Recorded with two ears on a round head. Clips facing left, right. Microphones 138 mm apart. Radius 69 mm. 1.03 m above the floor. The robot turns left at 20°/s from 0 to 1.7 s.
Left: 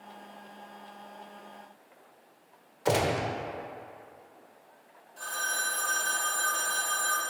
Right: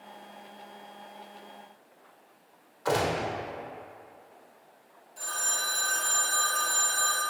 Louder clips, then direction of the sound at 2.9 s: Left 1 dB; 25° left (ahead or behind).